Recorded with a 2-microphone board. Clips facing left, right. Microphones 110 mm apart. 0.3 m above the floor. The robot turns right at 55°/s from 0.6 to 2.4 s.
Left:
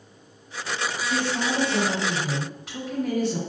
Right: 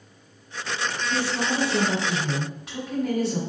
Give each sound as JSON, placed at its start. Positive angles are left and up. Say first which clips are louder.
{"t": 1.1, "sound": "a woman speaking", "louder": "left 1 dB", "azimuth_deg": 105, "distance_m": 1.2}